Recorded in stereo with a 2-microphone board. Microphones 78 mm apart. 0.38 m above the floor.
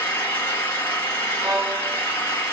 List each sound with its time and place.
0.0 s an engine running: 25° left (ahead or behind), 1.8 m
1.4 s a violin: 55° right (ahead or behind), 1.2 m